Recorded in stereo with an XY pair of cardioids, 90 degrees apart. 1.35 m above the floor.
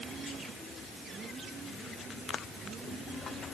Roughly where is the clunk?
No clunk in this recording.